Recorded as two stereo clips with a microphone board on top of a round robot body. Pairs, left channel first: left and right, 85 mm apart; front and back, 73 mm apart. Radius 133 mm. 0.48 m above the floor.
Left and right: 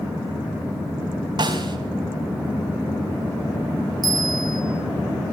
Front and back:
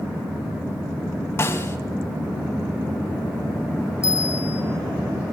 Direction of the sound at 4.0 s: 50° right.